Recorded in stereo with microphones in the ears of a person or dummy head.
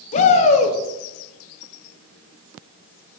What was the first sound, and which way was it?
A shout, 40° left (ahead or behind).